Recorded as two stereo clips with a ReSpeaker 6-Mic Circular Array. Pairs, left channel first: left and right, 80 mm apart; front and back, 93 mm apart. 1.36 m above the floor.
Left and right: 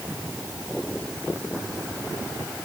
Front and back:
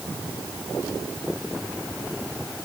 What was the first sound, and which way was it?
Only background noise.